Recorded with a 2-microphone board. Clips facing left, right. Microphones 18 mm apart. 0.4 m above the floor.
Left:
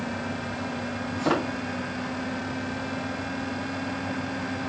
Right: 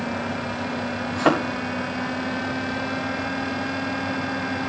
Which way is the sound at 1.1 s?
60° right (ahead or behind).